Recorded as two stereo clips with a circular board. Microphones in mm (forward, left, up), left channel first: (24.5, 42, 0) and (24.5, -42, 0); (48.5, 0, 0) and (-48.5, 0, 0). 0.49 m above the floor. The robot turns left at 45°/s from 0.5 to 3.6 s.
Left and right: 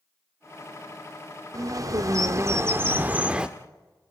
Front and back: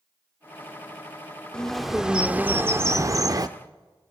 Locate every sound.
1.5 s a bird: 80° right, 0.8 m; by 3.5 s 165° right, 0.8 m